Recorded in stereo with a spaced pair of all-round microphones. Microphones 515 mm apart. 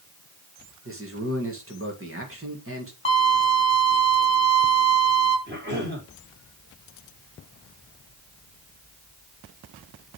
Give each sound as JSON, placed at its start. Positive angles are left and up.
{"t": 0.8, "sound": "a man speaking", "side_deg": -25, "distance_m": 2.0}
{"t": 3.0, "sound": "a violin", "side_deg": 10, "distance_m": 2.0}
{"t": 5.5, "sound": "a cough", "side_deg": -20, "distance_m": 4.0}